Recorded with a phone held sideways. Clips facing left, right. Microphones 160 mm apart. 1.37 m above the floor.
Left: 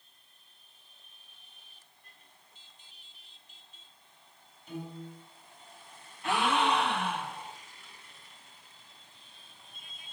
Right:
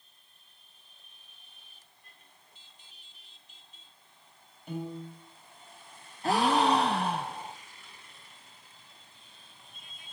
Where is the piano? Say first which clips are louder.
Right 4 dB; 65° right (ahead or behind), 6 m.